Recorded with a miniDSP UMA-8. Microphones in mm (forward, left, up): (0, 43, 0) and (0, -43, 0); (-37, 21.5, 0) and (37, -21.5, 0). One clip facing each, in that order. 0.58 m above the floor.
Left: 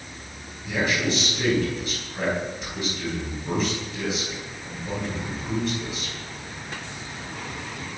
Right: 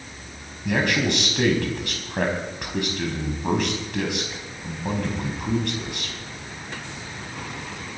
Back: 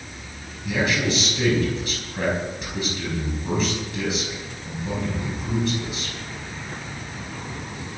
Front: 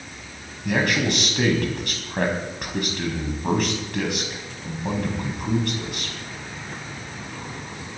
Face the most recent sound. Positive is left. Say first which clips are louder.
# right 2 dB, front 1 dB
turn(degrees=-60)